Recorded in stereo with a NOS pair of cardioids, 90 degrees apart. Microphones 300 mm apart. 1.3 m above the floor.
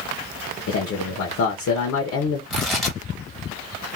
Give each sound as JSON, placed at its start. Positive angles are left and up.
{"t": 0.7, "sound": "a man speaking", "azimuth_deg": 65, "distance_m": 0.9}
{"t": 2.5, "sound": "tearing paper", "azimuth_deg": 0, "distance_m": 1.6}